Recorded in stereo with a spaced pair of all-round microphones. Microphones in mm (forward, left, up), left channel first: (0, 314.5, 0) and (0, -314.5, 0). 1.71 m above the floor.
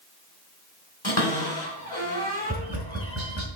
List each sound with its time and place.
1.0 s a cupboard door: 35° left (ahead or behind), 3.5 m
2.5 s tapping: 25° right (ahead or behind), 1.8 m